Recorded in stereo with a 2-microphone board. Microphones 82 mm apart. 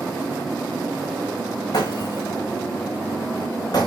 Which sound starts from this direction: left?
Breaking glass, at 1.7 s.